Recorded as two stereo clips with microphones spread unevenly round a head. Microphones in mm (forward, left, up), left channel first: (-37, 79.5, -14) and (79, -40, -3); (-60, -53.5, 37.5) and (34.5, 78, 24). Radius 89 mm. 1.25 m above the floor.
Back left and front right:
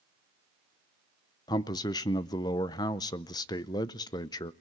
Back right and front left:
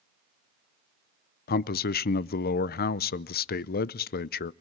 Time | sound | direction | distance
1.5 | a man speaking | 155° right | 0.6 m